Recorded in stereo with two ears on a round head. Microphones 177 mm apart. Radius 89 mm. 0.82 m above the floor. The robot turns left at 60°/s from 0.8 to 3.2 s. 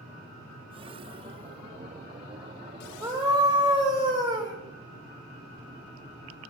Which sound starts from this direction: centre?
A scream, at 3.0 s.